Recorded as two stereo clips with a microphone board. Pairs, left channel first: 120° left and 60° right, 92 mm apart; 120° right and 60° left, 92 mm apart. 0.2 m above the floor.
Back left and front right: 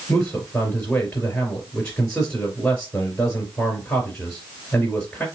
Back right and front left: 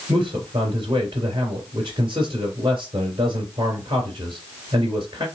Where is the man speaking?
45° left, 3 m.